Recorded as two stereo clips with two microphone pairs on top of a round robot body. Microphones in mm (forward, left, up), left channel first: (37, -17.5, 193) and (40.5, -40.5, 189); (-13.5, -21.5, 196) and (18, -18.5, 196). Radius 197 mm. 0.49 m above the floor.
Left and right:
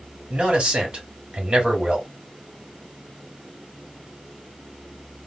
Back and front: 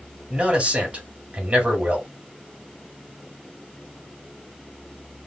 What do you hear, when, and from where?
0.3 s a man speaking: 45° right, 2.5 m